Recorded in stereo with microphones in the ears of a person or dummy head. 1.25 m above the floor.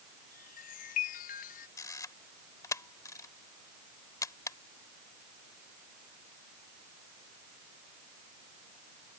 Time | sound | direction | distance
0.3 | a chime | 45° left (ahead or behind) | ?
1.8 | a camera shutter | 15° left (ahead or behind) | ?